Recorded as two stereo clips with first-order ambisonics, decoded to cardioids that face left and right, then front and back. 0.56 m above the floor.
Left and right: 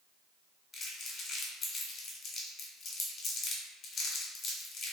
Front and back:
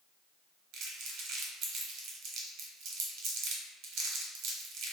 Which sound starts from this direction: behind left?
Crumpling, at 0.7 s.